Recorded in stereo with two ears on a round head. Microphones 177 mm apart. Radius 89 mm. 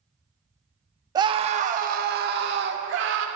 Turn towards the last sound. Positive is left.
turn(degrees=-65)  # may be behind; listen again after turning